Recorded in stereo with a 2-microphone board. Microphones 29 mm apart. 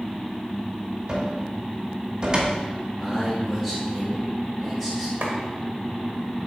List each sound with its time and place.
1.1 s a cupboard door: 30° right (ahead or behind), 1.1 m
3.0 s a man speaking: 20° left (ahead or behind), 1.2 m
5.2 s a clap: 80° right, 1.7 m